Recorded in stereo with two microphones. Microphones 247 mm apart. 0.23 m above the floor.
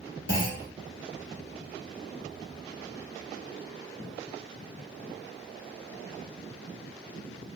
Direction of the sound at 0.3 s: 50° left (ahead or behind).